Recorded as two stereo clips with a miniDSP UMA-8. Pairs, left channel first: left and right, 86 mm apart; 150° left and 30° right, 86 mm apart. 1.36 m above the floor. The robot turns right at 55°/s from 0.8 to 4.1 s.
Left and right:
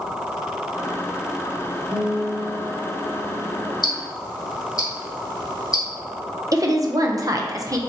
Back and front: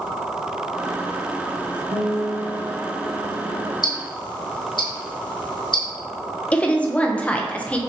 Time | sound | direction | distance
1.9 | a guitar | 5° left | 1.2 m
3.8 | ticking | 120° left | 1.1 m
6.5 | a woman speaking | 135° right | 0.7 m